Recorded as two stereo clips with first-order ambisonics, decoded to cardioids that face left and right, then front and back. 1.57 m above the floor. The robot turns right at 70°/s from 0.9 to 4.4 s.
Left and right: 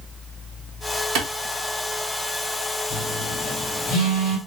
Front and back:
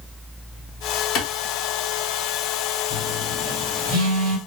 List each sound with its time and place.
1.1 s a clap: 45° right, 1.0 m; by 1.3 s 35° right, 1.0 m
2.9 s a phone buzzing: 75° left, 2.5 m; by 4.4 s straight behind, 2.5 m